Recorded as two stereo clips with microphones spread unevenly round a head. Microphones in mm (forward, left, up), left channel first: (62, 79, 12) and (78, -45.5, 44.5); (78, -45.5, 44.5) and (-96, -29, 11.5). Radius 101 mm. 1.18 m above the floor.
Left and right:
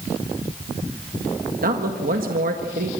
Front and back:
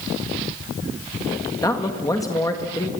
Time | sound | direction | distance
1.6 | a man speaking | 80° right | 1.9 m